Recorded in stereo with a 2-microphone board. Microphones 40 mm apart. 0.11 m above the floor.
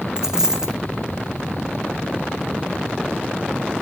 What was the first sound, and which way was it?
A dropped coin, 15° right (ahead or behind).